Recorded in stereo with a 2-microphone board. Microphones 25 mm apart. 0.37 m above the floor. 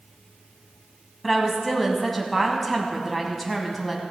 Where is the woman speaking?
5° left (ahead or behind), 2.5 m.